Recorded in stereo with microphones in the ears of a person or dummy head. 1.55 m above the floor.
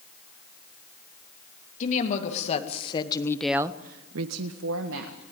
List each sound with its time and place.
1.8 s a woman speaking: 45° left (ahead or behind), 3 m; by 5.2 s 75° right (ahead or behind), 2 m